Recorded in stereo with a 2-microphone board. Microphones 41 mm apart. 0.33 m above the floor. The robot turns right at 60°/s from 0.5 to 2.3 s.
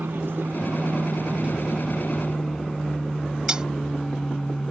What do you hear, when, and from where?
0.0 s an aircraft: 100° right; by 4.7 s 10° left
3.5 s cutlery clinking: 20° right (ahead or behind)